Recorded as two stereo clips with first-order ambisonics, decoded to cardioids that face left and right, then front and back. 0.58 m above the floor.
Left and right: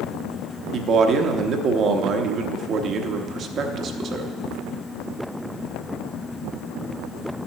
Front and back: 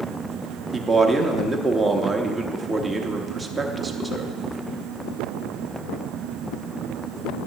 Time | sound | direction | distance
0.7 | a man speaking | 105° right | 0.8 m